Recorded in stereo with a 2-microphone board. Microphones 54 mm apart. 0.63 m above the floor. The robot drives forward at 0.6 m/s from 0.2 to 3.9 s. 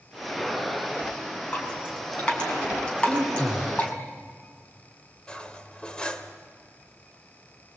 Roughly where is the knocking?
I don't hear knocking.